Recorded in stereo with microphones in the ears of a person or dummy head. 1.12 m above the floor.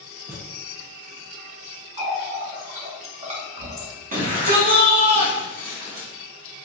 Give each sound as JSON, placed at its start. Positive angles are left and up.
{"t": 0.3, "sound": "a thud", "side_deg": -10, "distance_m": 0.5}
{"t": 2.0, "sound": "a running tap", "side_deg": -30, "distance_m": 0.8}
{"t": 4.1, "sound": "a shout", "side_deg": -40, "distance_m": 1.1}